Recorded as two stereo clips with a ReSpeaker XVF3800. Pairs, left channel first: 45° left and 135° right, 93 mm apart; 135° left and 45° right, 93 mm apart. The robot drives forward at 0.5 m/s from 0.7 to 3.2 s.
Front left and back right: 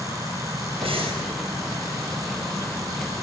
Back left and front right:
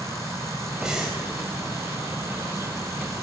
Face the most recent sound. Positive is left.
turn(degrees=-140)